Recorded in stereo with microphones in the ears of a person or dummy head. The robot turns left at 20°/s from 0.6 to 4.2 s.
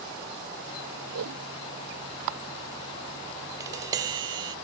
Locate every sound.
1.1 s a whoosh: 80° right; by 1.4 s 75° right (ahead or behind)
3.6 s tapping: 20° right (ahead or behind); by 4.5 s 25° right (ahead or behind)